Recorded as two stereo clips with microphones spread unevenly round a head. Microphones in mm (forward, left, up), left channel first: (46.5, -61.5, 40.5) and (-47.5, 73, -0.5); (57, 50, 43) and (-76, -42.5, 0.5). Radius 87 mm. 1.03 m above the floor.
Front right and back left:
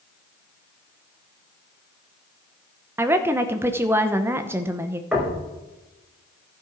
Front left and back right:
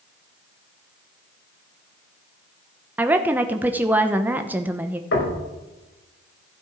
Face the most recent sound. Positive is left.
turn(degrees=40)